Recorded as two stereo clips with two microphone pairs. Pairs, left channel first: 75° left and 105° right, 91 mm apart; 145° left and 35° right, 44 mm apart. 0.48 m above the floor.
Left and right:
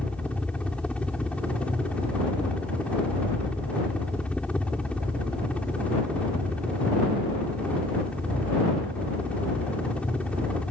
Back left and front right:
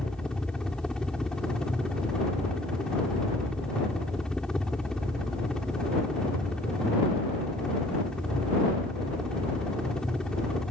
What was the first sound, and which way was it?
A helicopter, 120° left.